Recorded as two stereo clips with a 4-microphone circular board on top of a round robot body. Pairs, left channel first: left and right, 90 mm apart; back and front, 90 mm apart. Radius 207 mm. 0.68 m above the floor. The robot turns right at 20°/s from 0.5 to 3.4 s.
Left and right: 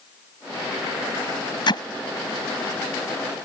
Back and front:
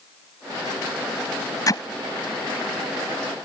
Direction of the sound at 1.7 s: 130° left.